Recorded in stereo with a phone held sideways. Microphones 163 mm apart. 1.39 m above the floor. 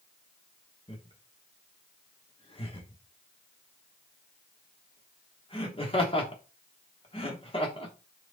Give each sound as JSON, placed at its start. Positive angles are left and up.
{"t": 0.9, "sound": "laughter", "side_deg": 35, "distance_m": 3.0}